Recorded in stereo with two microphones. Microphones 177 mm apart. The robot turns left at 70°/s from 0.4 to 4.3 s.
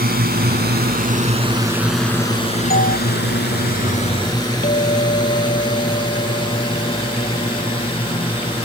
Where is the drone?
60° right (ahead or behind); by 8.7 s 30° left (ahead or behind).